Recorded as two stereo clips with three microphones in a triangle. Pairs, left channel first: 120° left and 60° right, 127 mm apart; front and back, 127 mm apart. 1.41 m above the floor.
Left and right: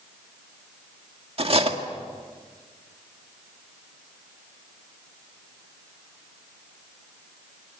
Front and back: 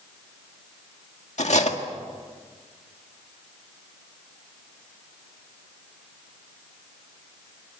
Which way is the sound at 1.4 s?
20° right.